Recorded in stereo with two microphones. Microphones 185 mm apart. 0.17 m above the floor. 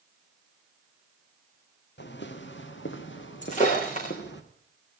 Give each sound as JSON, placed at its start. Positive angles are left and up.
{"t": 2.0, "sound": "footsteps", "side_deg": 70, "distance_m": 2.0}
{"t": 3.4, "sound": "breaking glass", "side_deg": 40, "distance_m": 7.5}